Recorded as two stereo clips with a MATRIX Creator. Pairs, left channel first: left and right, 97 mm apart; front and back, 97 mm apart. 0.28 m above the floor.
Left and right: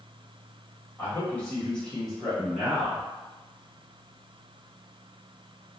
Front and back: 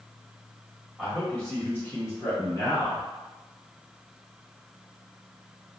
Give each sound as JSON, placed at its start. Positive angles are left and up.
{"t": 1.0, "sound": "a man speaking", "azimuth_deg": 80, "distance_m": 1.1}